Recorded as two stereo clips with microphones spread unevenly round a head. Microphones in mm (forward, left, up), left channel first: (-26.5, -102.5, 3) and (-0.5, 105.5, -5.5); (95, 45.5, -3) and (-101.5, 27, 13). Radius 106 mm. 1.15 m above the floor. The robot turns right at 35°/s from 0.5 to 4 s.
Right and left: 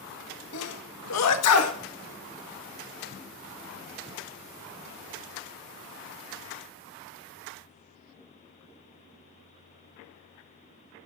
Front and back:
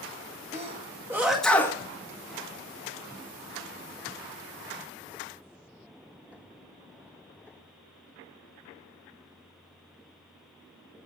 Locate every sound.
0.5 s a sneeze: 115° right, 2.0 m; by 1.8 s 70° right, 2.0 m